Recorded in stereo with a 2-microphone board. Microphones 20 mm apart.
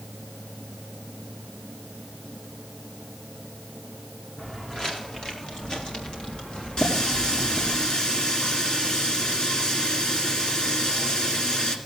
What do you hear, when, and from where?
4.4 s footsteps: 35° left (ahead or behind), 3 m; by 7.8 s 75° left (ahead or behind), 3.5 m
6.8 s a running tap: 45° left (ahead or behind), 1.8 m